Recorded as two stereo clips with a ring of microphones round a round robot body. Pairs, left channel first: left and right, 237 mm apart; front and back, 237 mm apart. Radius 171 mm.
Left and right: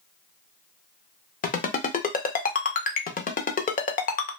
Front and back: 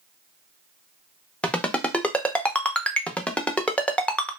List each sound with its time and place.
1.4 s a ringtone: 80° left, 0.7 m